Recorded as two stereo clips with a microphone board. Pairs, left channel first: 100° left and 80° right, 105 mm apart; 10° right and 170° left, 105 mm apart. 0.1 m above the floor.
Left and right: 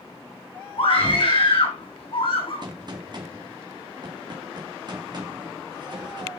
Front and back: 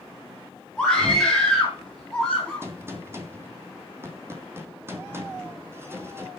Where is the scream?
75° left, 4.5 m.